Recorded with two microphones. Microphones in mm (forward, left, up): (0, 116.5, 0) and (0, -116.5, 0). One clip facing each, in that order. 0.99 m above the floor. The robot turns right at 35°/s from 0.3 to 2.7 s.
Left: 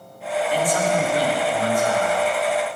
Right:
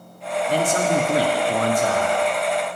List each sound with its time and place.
0.5 s a man speaking: 140° right, 1.6 m; by 2.2 s 80° right, 1.6 m